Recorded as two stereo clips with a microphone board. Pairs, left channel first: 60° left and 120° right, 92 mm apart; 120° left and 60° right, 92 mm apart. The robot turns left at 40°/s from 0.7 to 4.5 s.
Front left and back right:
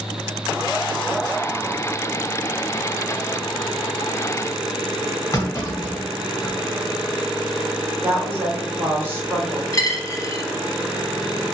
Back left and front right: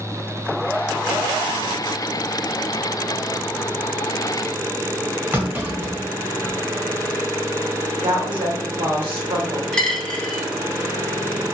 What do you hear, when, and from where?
5.3 s a clunk: 5° left, 1.2 m
8.0 s a woman speaking: 55° right, 1.3 m
9.7 s a dropped coin: 45° left, 0.9 m